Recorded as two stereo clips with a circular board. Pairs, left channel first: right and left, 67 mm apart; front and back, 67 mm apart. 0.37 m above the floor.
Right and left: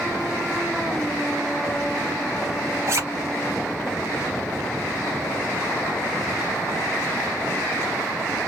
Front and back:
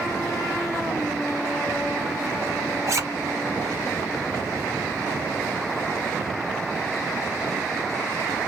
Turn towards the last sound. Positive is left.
turn(degrees=135)